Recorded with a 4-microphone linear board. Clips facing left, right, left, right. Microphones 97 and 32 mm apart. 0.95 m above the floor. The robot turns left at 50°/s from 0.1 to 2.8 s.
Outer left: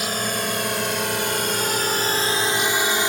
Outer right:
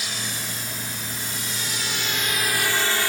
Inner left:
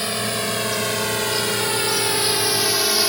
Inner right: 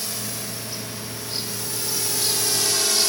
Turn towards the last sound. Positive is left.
turn(degrees=20)  # may be behind; listen again after turning